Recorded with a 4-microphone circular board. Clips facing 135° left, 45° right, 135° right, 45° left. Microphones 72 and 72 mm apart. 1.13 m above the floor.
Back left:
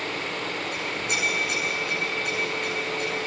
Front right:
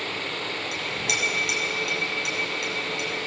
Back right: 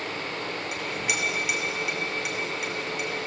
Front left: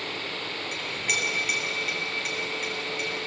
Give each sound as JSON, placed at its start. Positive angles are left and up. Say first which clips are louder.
{"t": 0.7, "sound": "a clink", "louder": "even, even", "azimuth_deg": -50, "distance_m": 6.5}